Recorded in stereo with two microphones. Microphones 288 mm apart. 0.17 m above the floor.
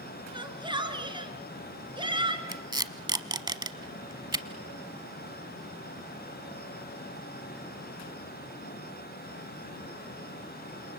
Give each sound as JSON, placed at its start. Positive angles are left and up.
{"t": 0.3, "sound": "a shout", "side_deg": -15, "distance_m": 2.5}
{"t": 2.5, "sound": "tape being pulled", "side_deg": -15, "distance_m": 0.9}